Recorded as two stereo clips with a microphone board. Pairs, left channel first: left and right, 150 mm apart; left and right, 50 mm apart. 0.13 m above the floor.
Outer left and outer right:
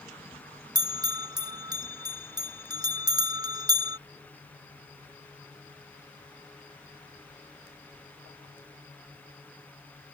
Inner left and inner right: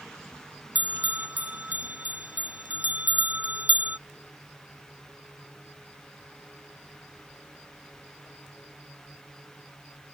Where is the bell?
30° right (ahead or behind).